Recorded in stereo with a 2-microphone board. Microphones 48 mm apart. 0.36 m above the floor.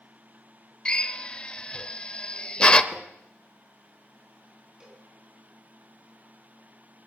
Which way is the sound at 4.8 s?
15° right (ahead or behind).